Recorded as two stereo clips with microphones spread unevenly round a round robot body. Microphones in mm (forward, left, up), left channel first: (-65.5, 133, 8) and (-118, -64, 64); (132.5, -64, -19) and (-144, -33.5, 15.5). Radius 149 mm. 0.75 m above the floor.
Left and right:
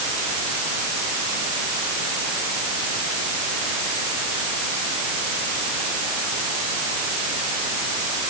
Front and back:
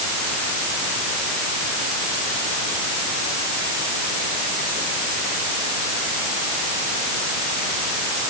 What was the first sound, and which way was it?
Only background noise.